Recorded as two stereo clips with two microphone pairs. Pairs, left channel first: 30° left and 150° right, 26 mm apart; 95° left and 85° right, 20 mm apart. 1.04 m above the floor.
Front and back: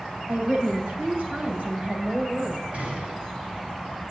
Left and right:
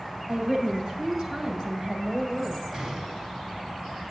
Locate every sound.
0.3 s a woman speaking: 110° right, 6 m; by 2.6 s 115° right, 5 m
2.7 s a gunshot: 120° right, 5 m